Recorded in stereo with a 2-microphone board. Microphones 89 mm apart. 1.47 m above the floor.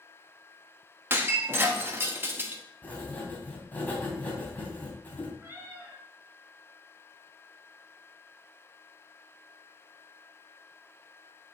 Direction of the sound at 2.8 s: 20° left (ahead or behind).